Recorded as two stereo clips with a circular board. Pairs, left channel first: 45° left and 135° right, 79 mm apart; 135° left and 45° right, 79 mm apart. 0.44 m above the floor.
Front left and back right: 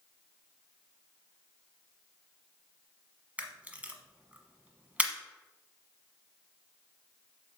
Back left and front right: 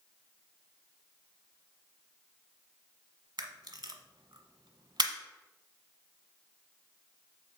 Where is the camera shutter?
65° right, 1.0 m.